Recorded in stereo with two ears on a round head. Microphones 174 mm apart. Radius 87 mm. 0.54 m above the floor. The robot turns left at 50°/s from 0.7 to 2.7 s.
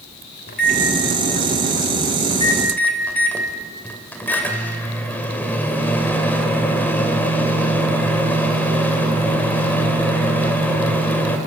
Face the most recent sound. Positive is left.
turn(degrees=10)